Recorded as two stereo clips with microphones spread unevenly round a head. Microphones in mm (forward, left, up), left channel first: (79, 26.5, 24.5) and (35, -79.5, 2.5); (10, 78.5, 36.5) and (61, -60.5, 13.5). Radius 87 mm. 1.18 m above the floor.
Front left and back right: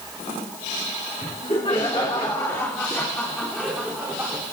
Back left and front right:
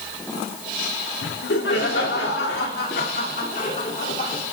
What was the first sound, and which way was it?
Laughter, 125° left.